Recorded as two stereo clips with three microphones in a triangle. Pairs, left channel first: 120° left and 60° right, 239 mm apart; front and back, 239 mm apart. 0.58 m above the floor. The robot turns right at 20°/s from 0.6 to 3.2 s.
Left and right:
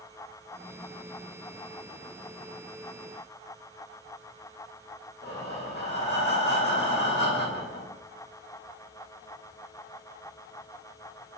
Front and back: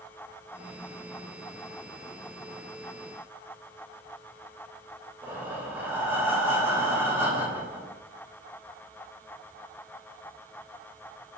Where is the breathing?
105° left, 1.5 m.